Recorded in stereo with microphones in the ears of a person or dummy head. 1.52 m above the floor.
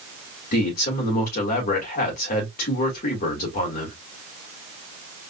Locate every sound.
0.5 s a man speaking: 50° left (ahead or behind), 2 m